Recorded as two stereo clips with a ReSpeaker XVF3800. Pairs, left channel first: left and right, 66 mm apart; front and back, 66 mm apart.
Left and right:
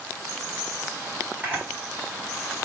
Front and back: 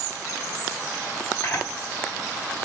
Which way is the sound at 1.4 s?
25° right.